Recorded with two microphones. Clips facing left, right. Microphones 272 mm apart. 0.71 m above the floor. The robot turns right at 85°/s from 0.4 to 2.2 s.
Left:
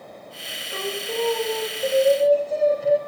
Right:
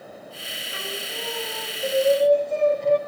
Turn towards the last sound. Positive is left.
turn(degrees=175)